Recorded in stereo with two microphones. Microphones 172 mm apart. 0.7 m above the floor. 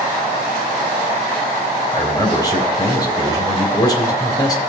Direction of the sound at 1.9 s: 25° left (ahead or behind).